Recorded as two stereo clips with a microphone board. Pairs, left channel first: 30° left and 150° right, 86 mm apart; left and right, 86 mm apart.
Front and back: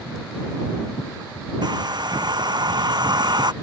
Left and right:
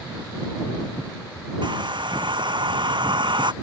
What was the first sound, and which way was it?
A hair dryer, 115° right.